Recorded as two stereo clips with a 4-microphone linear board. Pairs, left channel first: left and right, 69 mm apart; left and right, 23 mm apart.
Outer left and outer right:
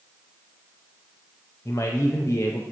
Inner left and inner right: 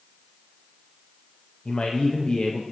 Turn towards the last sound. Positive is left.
turn(degrees=40)  # may be behind; listen again after turning